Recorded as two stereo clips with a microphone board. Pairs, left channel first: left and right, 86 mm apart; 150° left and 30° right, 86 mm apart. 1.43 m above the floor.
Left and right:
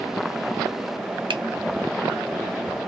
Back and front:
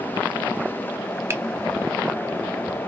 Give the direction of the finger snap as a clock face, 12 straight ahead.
3 o'clock.